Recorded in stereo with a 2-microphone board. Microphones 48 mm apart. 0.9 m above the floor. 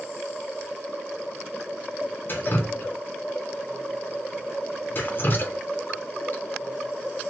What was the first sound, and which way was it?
Dripping, 45° left (ahead or behind).